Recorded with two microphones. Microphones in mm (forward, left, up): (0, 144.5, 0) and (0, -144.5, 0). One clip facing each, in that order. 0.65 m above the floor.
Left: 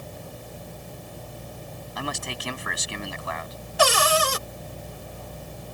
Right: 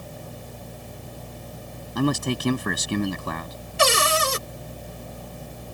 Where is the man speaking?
50° right (ahead or behind).